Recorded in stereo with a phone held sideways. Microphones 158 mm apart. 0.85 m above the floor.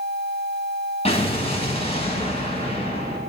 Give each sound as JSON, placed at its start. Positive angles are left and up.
{"t": 1.1, "sound": "an explosion", "side_deg": 40, "distance_m": 2.5}